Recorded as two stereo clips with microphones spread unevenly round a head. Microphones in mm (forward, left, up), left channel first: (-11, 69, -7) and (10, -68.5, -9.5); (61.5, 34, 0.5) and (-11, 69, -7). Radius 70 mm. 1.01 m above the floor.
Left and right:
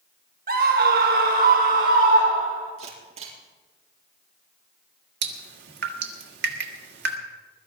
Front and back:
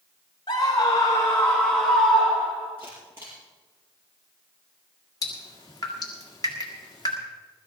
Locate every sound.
0.5 s a scream: 75° right, 1.3 m; by 2.7 s 120° right, 3 m
2.8 s a camera shutter: 130° right, 5.5 m
5.2 s dripping: 95° right, 1.7 m